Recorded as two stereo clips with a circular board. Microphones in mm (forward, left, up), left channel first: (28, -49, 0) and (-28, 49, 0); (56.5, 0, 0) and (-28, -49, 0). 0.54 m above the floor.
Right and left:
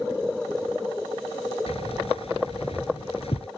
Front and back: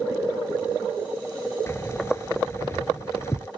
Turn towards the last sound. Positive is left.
turn(degrees=-30)